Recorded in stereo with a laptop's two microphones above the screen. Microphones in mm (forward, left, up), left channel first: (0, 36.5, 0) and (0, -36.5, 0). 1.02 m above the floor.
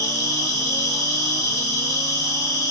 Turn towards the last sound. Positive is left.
turn(degrees=50)  # may be behind; listen again after turning